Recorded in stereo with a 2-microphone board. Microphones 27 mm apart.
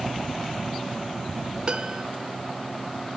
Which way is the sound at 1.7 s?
25° right (ahead or behind).